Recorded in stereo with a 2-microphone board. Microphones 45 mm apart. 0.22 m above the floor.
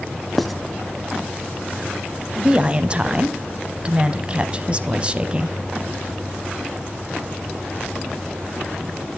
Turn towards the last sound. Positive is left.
turn(degrees=-25)  # may be behind; listen again after turning